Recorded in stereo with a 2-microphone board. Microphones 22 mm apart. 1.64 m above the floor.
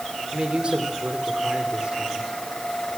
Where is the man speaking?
45° right (ahead or behind), 4.5 m.